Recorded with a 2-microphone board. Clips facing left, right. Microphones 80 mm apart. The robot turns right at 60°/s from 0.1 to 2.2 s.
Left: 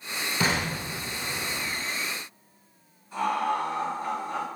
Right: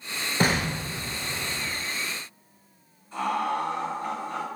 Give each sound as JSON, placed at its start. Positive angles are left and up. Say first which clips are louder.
{"t": 0.4, "sound": "an explosion", "louder": "right 3 dB", "side_deg": -55, "distance_m": 0.5}
{"t": 3.1, "sound": "laughter", "louder": "even", "side_deg": 5, "distance_m": 1.6}